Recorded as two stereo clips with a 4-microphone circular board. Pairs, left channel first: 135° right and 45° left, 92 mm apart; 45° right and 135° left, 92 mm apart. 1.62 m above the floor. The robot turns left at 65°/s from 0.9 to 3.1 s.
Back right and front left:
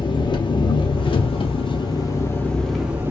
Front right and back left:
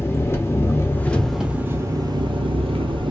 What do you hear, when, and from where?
0.0 s an engine running: 105° right, 0.7 m; by 3.1 s 110° left, 0.7 m